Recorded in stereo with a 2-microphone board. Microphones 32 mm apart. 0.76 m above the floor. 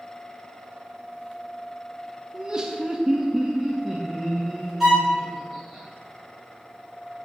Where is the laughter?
20° right (ahead or behind), 0.8 m; by 5.8 s 5° left (ahead or behind), 1.8 m.